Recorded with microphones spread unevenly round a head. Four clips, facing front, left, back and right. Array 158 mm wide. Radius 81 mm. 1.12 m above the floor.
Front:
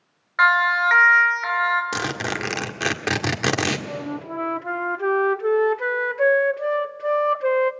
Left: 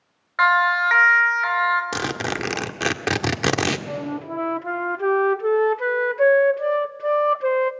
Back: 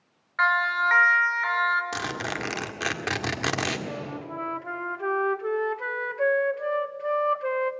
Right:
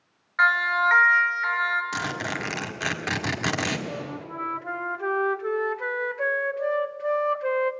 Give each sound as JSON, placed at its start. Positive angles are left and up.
{"t": 0.4, "sound": "a siren", "azimuth_deg": 50, "distance_m": 3.0}
{"t": 1.9, "sound": "a zipper", "azimuth_deg": 55, "distance_m": 1.7}
{"t": 3.9, "sound": "a flute", "azimuth_deg": 50, "distance_m": 0.6}